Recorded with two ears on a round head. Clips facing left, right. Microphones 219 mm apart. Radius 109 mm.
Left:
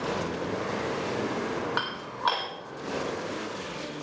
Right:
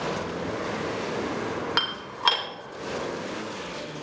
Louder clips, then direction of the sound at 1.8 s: Right 1 dB; 45° right (ahead or behind).